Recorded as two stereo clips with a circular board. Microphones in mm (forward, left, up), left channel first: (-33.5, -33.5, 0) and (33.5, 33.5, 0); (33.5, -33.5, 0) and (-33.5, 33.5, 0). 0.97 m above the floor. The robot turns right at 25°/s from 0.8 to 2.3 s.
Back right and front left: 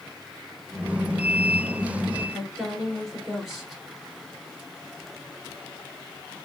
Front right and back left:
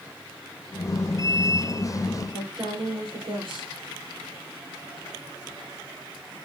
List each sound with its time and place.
2.3 s a woman speaking: 130° left, 3 m